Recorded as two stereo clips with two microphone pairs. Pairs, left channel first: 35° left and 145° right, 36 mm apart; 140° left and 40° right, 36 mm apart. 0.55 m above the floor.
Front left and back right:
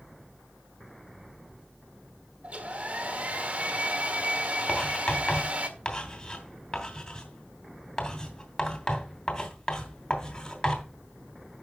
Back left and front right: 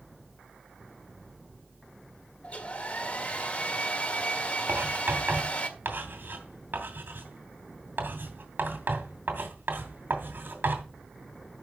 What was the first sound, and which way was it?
A hair dryer, 175° left.